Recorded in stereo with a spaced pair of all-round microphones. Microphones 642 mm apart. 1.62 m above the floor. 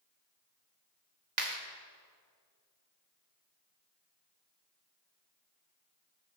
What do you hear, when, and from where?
1.4 s a clap: 80° right, 3 m